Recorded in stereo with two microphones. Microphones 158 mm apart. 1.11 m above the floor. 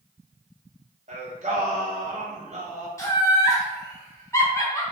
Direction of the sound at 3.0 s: 20° left (ahead or behind).